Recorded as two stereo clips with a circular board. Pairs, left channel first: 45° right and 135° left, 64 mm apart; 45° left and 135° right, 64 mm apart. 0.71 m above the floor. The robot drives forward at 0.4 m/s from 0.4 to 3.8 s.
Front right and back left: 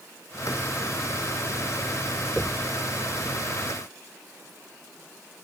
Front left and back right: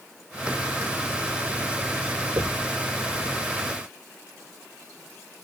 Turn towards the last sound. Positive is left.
turn(degrees=-145)